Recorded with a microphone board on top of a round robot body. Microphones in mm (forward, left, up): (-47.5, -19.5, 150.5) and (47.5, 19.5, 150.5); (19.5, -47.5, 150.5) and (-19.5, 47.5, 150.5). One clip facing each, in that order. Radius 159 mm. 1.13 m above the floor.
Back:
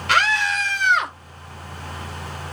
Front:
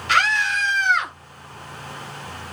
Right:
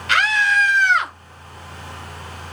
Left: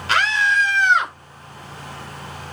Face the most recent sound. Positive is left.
turn(degrees=-175)